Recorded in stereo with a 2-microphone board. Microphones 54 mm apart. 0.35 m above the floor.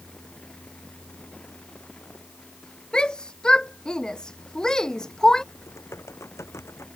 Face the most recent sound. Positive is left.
turn(degrees=60)  # may be behind; listen again after turning